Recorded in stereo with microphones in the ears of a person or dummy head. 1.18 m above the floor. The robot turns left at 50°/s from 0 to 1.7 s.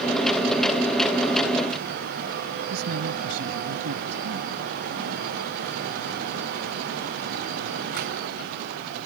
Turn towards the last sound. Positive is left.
turn(degrees=-85)